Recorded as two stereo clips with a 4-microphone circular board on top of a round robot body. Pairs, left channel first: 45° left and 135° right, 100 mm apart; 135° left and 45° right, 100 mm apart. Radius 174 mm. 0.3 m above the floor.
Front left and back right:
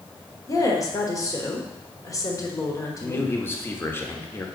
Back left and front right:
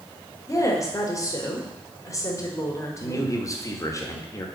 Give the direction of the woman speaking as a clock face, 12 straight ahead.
9 o'clock.